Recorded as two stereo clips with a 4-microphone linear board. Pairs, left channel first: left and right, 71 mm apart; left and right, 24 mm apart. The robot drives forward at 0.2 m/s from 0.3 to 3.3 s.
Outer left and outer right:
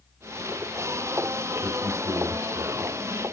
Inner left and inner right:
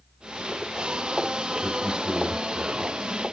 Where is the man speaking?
60° right (ahead or behind), 3 m.